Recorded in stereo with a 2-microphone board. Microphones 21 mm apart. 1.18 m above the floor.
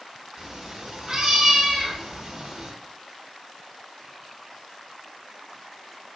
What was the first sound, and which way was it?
A cat meowing, 30° right (ahead or behind).